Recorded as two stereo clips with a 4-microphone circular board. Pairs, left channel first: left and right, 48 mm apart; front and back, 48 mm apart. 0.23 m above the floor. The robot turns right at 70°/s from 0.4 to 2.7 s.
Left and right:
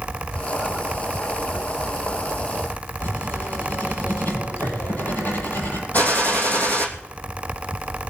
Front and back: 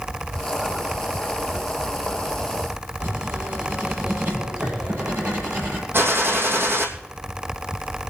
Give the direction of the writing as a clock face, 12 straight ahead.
7 o'clock.